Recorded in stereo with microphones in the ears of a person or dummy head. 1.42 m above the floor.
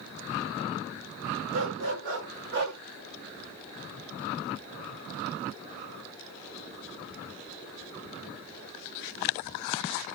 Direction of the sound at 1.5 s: 55° right (ahead or behind).